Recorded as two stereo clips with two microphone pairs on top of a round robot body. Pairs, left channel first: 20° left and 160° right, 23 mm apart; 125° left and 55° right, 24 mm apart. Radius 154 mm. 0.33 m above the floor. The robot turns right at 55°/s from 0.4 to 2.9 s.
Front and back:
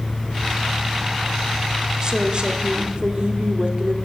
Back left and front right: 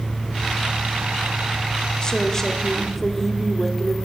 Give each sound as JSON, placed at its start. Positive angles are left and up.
{"t": 2.0, "sound": "a woman speaking", "azimuth_deg": 160, "distance_m": 1.2}